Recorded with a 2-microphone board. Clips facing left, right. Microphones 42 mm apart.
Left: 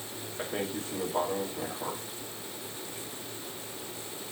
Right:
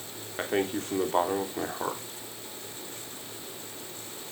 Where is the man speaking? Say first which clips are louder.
Right 6 dB; 55° right (ahead or behind), 3 m.